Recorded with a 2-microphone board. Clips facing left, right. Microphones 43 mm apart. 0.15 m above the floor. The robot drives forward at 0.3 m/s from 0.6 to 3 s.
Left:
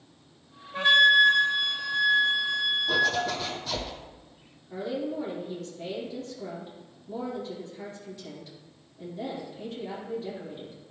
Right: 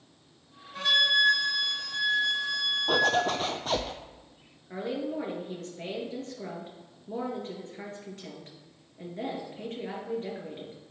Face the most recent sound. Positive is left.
turn(degrees=-50)  # may be behind; listen again after turning